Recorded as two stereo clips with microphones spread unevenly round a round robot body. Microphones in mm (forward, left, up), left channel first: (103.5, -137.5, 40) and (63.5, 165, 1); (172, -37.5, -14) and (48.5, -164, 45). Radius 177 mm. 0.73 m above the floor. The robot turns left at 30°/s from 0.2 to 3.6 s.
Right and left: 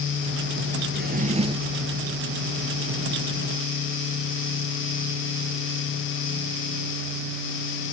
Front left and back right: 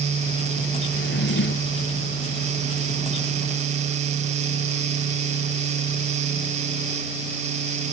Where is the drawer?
40° left; by 1.8 s 15° left.